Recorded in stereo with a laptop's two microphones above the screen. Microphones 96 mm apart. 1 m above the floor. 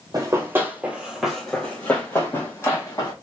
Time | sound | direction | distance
0.1 | running footsteps | 35° right (ahead or behind) | 1.2 m